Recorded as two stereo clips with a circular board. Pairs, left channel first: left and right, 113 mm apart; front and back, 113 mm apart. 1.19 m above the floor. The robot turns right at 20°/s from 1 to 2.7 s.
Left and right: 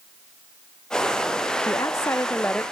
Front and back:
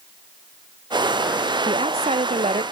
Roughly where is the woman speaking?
Behind left.